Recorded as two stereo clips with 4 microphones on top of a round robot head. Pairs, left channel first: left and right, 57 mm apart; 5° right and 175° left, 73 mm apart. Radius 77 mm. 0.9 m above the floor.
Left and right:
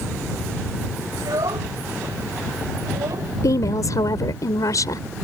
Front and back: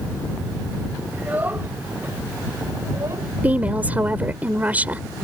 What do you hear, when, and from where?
1.1 s a child speaking: 110° right; by 3.3 s 125° right
3.4 s a woman speaking: 110° left